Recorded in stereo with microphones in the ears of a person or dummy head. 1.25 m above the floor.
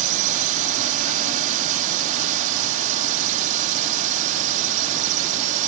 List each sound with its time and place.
0.0 s a drone: 45° right (ahead or behind)